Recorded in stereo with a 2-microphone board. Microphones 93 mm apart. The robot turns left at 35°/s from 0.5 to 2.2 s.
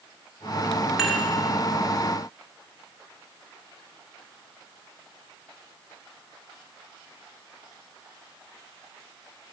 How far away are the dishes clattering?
About 2.5 m.